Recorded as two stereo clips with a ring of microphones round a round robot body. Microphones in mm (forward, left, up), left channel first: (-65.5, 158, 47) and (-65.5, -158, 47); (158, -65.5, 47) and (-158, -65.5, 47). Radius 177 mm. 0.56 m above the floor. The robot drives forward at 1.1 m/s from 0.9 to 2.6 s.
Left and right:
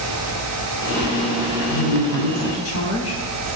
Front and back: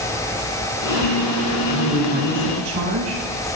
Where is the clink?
No clink in this recording.